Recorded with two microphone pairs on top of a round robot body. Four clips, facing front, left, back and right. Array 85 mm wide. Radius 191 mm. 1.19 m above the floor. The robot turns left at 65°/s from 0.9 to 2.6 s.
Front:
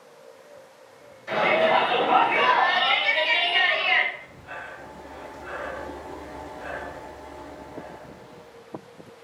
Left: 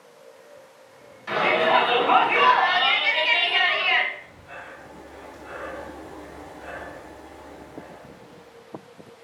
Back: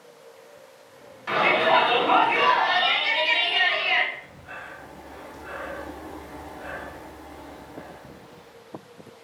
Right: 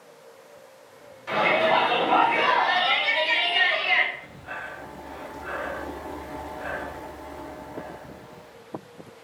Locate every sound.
1.3 s a shout: 170° left, 2 m; by 4.0 s 85° left, 2 m
4.1 s breathing: 100° right, 0.8 m